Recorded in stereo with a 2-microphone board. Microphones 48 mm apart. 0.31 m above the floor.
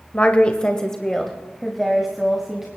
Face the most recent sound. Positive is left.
turn(degrees=-10)  # may be behind; listen again after turning